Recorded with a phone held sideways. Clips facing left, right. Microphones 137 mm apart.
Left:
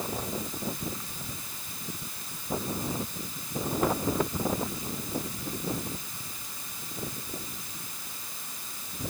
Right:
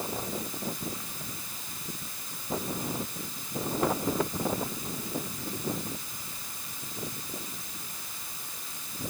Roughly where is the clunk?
No clunk in this recording.